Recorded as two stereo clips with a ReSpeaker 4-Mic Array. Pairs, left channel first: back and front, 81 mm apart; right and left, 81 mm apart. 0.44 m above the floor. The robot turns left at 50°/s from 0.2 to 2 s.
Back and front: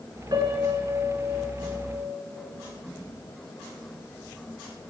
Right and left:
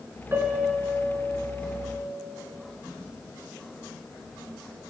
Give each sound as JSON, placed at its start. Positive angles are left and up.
{"t": 0.3, "sound": "a piano", "azimuth_deg": 30, "distance_m": 2.0}